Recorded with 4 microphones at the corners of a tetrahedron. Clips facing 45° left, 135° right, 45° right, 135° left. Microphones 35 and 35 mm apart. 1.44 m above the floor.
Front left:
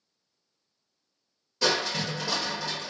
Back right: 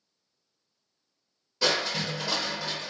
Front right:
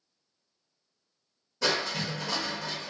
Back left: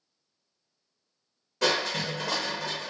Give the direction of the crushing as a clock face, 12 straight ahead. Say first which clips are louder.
Even, back left 2 dB; 7 o'clock.